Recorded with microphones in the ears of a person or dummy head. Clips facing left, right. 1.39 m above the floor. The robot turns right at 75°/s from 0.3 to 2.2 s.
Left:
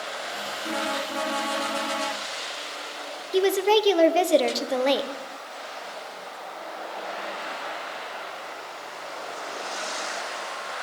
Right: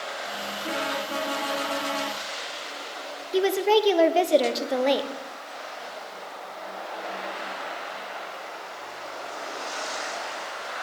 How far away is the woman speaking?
About 0.8 m.